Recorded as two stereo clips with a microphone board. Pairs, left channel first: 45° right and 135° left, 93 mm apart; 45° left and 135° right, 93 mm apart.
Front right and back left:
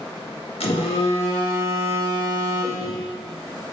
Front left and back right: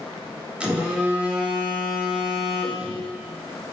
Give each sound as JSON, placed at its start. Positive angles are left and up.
{"t": 0.6, "sound": "a phone buzzing", "azimuth_deg": -55, "distance_m": 1.8}